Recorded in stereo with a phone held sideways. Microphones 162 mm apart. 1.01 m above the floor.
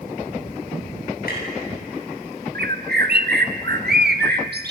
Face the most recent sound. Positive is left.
turn(degrees=-80)